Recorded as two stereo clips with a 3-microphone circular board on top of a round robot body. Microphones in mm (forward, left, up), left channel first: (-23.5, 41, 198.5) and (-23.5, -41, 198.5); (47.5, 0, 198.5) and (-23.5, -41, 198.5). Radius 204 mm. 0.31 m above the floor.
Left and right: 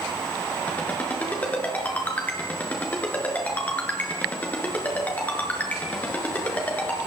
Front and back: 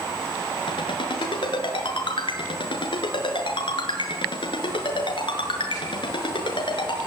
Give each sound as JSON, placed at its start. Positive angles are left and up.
{"t": 0.7, "sound": "a ringtone", "azimuth_deg": 15, "distance_m": 6.0}